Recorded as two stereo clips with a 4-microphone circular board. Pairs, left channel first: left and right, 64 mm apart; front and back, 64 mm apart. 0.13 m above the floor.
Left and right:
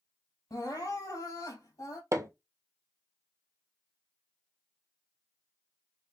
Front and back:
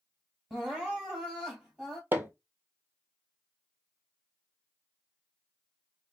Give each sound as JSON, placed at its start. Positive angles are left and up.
{"t": 0.5, "sound": "crying", "azimuth_deg": 100, "distance_m": 2.5}
{"t": 2.1, "sound": "hammering", "azimuth_deg": -125, "distance_m": 1.1}